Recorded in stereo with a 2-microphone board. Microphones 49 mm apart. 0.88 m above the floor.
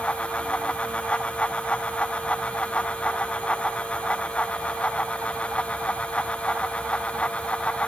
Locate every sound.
Only background noise.